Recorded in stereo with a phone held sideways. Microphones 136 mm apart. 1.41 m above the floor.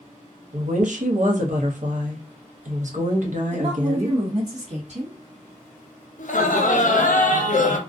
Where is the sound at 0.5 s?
65° right (ahead or behind), 0.7 m.